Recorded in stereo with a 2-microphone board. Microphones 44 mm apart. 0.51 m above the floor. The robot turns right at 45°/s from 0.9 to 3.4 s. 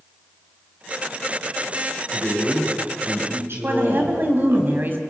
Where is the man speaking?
170° right, 7 m; by 4.6 s 115° right, 7 m.